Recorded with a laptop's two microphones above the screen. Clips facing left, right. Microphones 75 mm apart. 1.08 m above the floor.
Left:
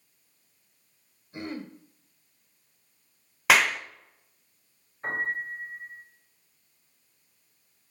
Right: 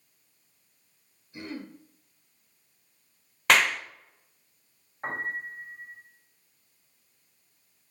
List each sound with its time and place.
1.3 s throat clearing: 40° left (ahead or behind), 1.1 m
3.5 s a clap: 5° left (ahead or behind), 0.5 m
5.0 s a piano: 45° right (ahead or behind), 2 m